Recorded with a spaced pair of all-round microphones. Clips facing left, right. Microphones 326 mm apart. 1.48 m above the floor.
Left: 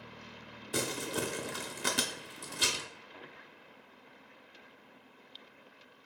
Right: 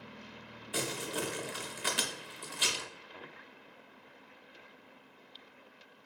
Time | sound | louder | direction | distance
0.7 | crumpling | left 2 dB | 55° left (ahead or behind) | 0.6 m